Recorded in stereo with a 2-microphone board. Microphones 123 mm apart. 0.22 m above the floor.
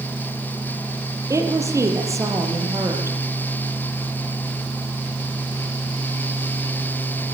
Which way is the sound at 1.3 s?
25° right (ahead or behind).